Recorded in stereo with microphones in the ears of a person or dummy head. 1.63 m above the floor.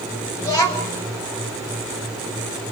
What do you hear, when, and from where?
0.4 s a child speaking: 15° left (ahead or behind), 3.5 m